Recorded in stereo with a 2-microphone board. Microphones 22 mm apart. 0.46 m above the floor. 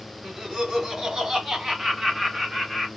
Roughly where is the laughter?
Right.